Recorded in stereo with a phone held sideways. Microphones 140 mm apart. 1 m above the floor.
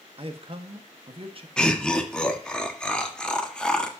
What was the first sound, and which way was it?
A man speaking, 45° right (ahead or behind).